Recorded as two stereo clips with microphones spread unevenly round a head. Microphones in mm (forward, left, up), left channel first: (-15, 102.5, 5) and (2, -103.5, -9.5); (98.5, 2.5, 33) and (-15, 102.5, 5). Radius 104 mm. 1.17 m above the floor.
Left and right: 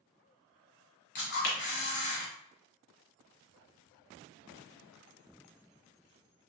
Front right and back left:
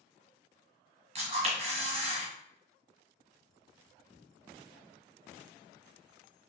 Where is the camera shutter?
95° left, 1.4 m.